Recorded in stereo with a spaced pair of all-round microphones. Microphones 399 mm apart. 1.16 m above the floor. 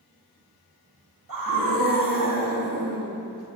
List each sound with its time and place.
1.3 s a scream: 55° right (ahead or behind), 2.5 m